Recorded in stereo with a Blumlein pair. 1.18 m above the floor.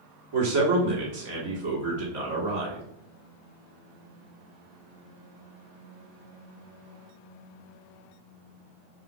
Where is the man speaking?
50° right, 1.6 m.